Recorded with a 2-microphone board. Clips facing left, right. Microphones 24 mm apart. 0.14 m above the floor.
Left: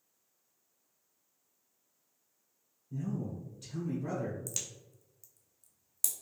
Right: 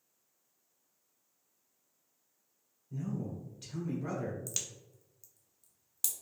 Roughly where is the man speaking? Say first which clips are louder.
Left 1 dB; right.